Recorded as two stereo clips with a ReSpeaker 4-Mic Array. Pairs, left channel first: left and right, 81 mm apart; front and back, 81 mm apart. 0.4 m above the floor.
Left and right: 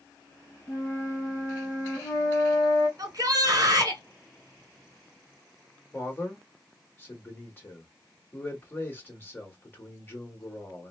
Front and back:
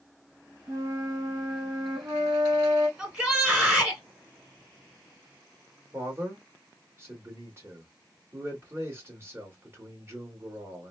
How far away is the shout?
About 1.4 m.